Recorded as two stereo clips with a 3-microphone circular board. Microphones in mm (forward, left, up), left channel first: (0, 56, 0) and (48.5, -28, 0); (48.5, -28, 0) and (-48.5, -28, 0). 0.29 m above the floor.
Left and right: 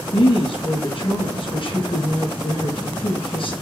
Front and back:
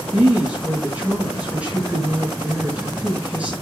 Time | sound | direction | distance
0.1 | a woman speaking | 105° left | 4.5 m